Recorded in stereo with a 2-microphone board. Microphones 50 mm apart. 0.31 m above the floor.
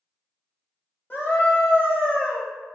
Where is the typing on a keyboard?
No typing on a keyboard in this recording.